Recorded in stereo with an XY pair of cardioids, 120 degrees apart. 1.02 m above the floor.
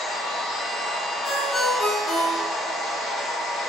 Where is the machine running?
55° left, 1.4 m.